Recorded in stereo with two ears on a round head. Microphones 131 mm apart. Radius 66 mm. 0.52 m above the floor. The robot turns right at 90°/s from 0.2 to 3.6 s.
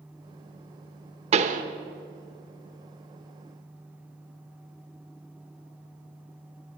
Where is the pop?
45° right (ahead or behind), 0.9 m; by 1.6 s 60° right (ahead or behind), 0.9 m.